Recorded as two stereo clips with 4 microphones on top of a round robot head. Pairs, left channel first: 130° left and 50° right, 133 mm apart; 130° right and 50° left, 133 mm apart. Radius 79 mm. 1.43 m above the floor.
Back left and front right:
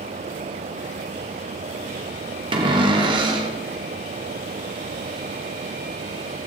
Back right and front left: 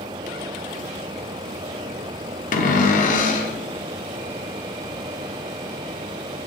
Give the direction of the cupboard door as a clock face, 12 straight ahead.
3 o'clock.